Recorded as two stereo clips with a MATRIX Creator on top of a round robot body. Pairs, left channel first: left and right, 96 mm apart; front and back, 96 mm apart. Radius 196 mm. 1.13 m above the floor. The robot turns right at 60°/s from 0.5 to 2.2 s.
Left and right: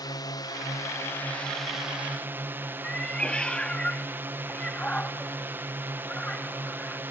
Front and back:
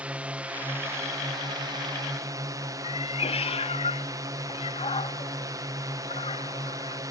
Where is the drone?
110° left; by 7.1 s 150° right.